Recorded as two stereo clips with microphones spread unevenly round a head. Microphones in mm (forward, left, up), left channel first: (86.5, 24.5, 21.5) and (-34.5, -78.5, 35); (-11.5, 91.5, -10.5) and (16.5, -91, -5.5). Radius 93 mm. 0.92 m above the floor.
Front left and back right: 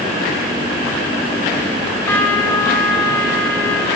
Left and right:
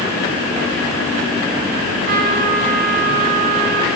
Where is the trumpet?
35° right, 4.5 m.